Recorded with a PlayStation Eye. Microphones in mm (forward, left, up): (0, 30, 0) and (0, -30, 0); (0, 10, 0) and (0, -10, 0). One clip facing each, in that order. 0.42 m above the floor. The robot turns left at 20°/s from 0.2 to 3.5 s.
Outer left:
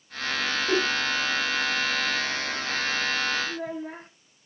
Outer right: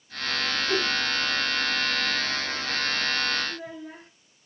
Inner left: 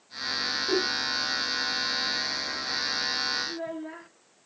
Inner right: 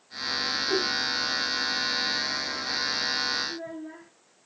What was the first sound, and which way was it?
A whoosh, 65° left (ahead or behind).